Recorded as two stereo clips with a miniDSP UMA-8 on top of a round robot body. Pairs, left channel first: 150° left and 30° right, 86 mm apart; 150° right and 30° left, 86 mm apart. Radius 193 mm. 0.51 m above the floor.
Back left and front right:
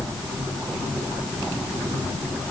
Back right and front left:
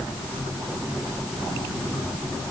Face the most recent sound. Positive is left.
No sound to turn to.